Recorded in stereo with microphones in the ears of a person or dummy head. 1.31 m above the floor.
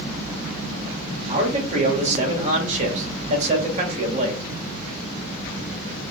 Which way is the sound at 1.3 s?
45° right (ahead or behind).